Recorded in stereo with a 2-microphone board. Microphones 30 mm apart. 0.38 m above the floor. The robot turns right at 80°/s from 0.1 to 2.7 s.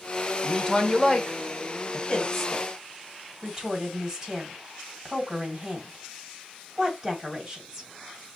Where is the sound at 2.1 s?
25° left (ahead or behind), 2.5 m; by 7.9 s 15° right (ahead or behind), 2.5 m.